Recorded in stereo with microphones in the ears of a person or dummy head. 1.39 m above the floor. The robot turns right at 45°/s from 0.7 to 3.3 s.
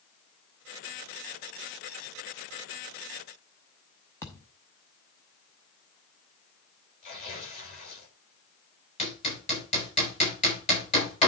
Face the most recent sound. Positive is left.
turn(degrees=35)  # may be behind; listen again after turning